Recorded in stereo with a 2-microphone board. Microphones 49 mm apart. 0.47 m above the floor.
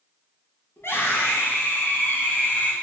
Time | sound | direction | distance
0.8 | a scream | 55° left (ahead or behind) | 4 m